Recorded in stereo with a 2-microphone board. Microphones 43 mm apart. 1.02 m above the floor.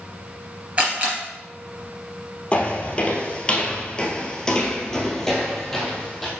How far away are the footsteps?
About 1.2 m.